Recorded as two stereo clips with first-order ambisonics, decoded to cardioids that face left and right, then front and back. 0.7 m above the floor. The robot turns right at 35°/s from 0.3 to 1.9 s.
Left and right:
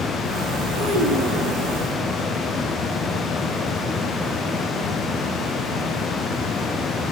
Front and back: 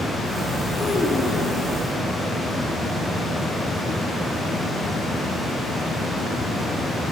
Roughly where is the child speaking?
Right.